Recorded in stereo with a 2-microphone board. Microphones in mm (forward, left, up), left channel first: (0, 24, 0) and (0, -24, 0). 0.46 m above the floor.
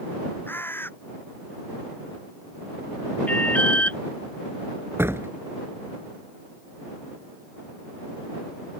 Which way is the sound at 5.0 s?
60° right (ahead or behind).